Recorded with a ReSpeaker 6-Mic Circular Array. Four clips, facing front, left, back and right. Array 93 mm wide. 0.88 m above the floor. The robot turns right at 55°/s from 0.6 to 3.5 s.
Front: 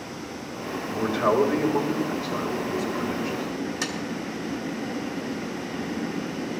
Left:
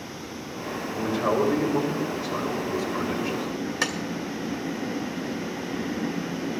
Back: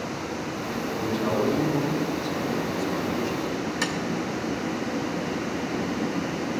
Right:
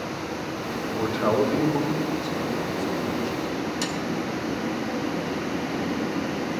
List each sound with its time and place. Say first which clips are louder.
0.9 s a man speaking: right 1 dB, front 5 dB; 65° right, 3.5 m; by 3.5 s 75° left, 3.5 m
3.8 s tapping: even, back 3 dB; 100° left, 1.9 m